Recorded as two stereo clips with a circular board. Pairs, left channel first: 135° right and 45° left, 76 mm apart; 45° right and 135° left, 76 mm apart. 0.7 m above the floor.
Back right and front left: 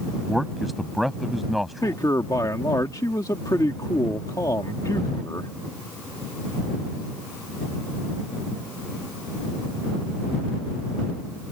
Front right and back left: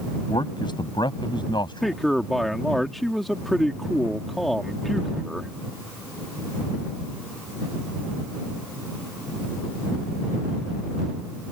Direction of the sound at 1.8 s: 135° right.